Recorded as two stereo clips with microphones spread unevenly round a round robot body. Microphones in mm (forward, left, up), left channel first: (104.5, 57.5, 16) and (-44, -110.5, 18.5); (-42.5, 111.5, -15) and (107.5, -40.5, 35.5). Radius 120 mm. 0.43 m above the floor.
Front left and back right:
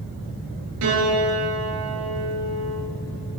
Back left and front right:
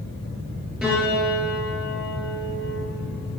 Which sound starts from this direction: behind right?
A piano, at 0.8 s.